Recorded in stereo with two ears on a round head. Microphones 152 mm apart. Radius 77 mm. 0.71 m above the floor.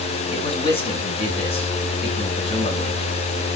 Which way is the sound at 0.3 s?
35° left (ahead or behind).